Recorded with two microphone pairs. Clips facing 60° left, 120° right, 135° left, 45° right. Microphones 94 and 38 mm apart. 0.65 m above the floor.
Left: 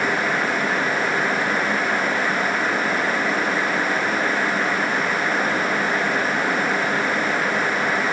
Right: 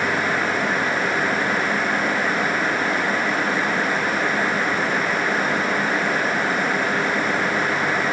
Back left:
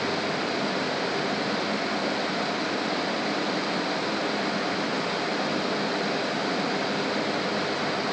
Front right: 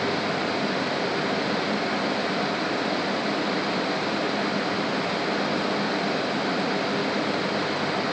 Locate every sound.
Only background noise.